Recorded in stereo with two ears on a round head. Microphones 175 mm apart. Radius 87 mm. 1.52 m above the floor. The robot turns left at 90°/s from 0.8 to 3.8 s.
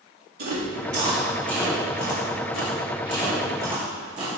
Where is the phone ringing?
I don't hear a phone ringing.